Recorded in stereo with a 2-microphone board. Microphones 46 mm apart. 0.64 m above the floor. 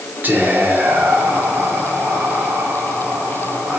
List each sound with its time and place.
0.2 s whispering: 45° right (ahead or behind), 1.2 m